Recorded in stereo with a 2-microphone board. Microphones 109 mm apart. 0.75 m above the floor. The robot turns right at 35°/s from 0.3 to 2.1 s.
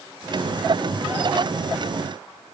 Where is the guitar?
I don't hear a guitar.